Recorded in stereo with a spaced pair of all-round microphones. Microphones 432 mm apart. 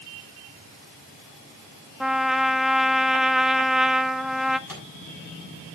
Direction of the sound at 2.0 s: Centre (ahead or behind).